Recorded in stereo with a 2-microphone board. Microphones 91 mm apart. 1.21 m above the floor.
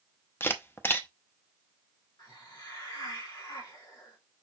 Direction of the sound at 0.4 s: 25° left (ahead or behind).